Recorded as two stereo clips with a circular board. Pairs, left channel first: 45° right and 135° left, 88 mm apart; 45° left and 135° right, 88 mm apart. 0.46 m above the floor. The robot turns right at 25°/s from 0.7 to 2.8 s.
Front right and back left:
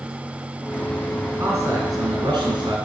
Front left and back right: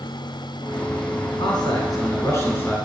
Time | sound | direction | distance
1.3 | a man speaking | 75° left | 6.5 m